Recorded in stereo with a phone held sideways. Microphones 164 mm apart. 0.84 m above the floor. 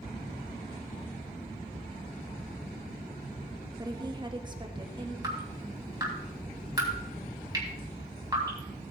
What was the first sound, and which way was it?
A woman speaking, 25° right (ahead or behind).